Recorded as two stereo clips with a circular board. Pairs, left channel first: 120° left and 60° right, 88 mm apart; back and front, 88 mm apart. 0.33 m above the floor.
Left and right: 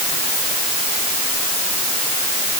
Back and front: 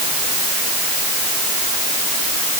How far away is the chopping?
No chopping in this recording.